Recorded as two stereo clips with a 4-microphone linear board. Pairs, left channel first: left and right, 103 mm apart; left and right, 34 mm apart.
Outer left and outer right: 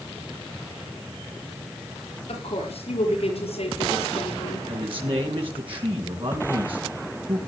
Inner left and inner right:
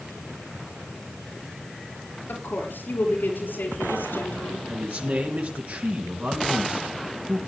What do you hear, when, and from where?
2.3 s a woman speaking: 75° left (ahead or behind), 5 m; by 4.6 s 70° left (ahead or behind), 7 m
4.7 s a man speaking: 55° right (ahead or behind), 3.5 m